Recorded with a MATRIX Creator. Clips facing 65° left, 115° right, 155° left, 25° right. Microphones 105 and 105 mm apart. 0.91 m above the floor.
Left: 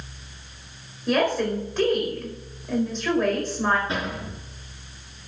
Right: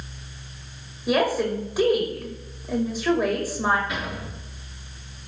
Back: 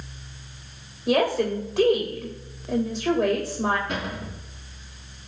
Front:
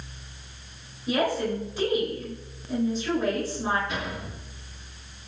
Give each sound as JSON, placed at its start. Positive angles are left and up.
{"t": 1.1, "sound": "a woman speaking", "azimuth_deg": 165, "distance_m": 5.0}
{"t": 3.9, "sound": "a cupboard door", "azimuth_deg": 125, "distance_m": 6.0}